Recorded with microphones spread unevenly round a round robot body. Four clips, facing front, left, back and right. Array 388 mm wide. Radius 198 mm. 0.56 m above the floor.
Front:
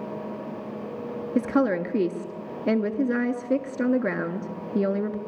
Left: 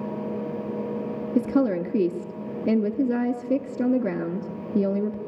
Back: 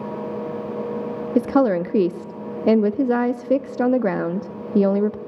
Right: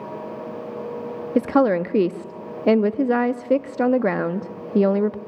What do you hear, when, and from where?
1.4 s a woman speaking: 160° left, 0.6 m